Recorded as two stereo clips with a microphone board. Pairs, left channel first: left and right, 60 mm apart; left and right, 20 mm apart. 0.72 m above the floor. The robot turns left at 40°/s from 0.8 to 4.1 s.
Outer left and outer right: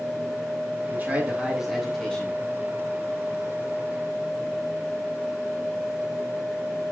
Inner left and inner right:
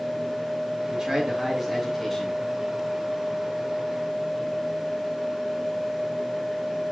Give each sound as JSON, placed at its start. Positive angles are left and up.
{"t": 0.9, "sound": "a man speaking", "azimuth_deg": -145, "distance_m": 8.5}